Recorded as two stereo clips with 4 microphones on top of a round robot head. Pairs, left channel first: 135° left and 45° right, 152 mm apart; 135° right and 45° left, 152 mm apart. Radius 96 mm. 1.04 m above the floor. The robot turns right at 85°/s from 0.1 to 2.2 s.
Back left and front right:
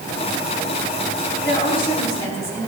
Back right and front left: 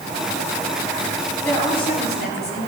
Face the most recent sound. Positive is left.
turn(degrees=-155)